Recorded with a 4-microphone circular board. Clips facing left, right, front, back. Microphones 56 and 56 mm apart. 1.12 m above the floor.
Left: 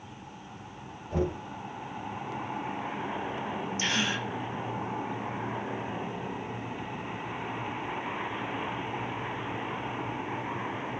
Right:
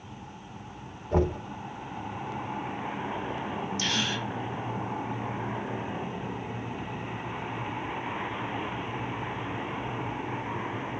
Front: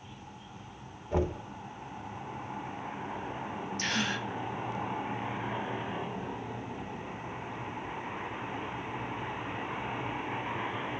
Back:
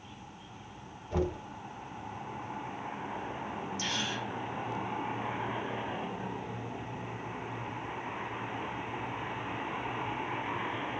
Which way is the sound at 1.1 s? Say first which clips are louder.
Right 4 dB, front 1 dB; 60° right.